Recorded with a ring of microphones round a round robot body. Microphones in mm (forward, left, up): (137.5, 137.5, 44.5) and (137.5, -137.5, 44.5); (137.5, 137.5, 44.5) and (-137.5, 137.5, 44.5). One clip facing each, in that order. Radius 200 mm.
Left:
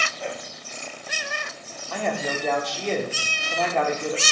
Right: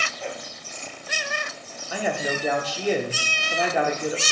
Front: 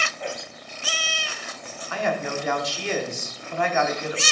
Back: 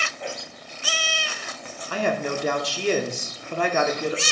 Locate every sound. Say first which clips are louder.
1.9 s a man speaking: right 1 dB, back 2 dB; 170° right, 1.1 m